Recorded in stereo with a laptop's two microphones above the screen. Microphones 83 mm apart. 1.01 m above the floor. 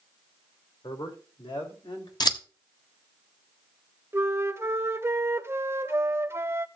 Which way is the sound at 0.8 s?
75° left (ahead or behind).